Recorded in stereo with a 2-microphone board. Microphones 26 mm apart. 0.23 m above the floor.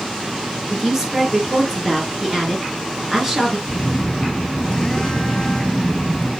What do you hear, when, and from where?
0.7 s a woman speaking: 15° right (ahead or behind), 4 m
3.7 s a phone buzzing: 30° left (ahead or behind), 1.9 m